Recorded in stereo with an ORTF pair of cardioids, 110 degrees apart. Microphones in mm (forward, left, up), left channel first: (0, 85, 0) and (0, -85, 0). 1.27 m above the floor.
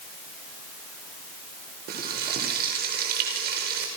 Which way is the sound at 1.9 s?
65° right.